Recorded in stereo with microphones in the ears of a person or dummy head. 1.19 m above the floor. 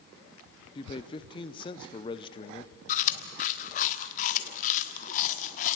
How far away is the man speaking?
About 0.6 m.